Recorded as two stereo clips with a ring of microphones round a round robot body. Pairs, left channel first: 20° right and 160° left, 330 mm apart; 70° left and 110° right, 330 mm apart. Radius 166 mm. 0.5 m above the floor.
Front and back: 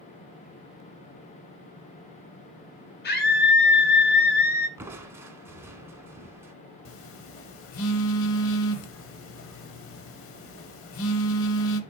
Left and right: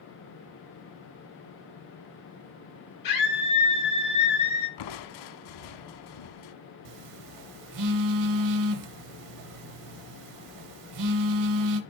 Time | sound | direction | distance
3.0 | a scream | 35° left | 5.5 m
4.8 | crushing | 75° left | 0.7 m
6.8 | a phone buzzing | 75° right | 0.8 m